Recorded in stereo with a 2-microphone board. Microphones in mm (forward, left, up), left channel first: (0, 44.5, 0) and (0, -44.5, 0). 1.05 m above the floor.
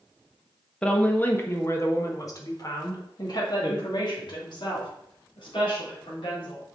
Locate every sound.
0.8 s a woman speaking: 10° left (ahead or behind), 1.3 m; by 6.6 s 65° left (ahead or behind), 4 m